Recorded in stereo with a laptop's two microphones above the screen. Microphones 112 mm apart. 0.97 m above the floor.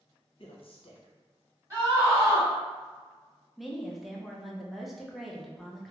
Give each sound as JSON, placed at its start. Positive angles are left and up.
{"t": 0.4, "sound": "a woman speaking", "side_deg": 55, "distance_m": 0.7}
{"t": 1.7, "sound": "a scream", "side_deg": -25, "distance_m": 1.5}
{"t": 3.6, "sound": "a woman speaking", "side_deg": 0, "distance_m": 0.6}